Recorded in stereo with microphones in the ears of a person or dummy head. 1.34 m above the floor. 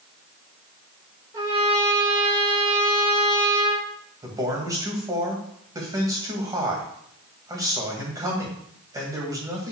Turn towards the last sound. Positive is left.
turn(degrees=-20)  # may be behind; listen again after turning